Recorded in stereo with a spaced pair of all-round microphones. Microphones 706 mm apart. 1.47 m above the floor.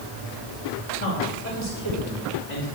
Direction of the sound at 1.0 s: 15° left (ahead or behind).